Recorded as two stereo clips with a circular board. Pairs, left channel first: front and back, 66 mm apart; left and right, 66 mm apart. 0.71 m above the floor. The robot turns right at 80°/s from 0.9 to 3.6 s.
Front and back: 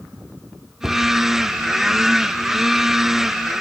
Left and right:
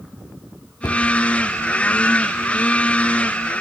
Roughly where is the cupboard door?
Left.